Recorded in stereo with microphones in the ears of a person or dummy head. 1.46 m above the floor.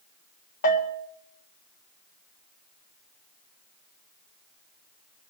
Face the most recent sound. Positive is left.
turn(degrees=50)  # may be behind; listen again after turning